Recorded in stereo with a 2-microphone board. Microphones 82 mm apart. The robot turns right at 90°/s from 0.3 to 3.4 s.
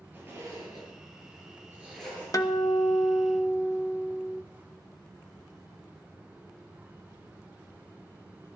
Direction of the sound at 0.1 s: 25° right (ahead or behind).